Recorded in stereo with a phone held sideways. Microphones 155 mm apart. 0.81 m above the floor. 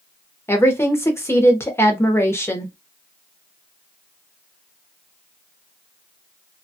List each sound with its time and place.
0.5 s a woman speaking: 15° left (ahead or behind), 0.8 m